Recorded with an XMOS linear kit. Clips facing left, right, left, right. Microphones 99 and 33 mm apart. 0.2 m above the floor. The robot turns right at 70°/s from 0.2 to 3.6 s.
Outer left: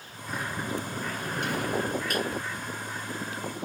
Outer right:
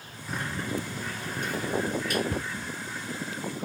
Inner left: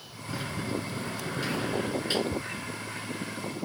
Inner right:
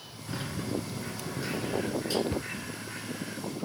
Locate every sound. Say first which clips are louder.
0.3 s a sliding door: even, inner left 1 dB; 5° right, 1.3 m; by 2.2 s 130° left, 1.3 m
2.3 s a cupboard door: outer right 1 dB, even; 60° right (ahead or behind), 0.9 m; by 2.5 s 50° right (ahead or behind), 0.9 m